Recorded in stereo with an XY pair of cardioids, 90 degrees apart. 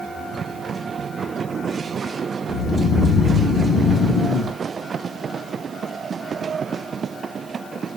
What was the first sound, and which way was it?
Snoring, 55° left.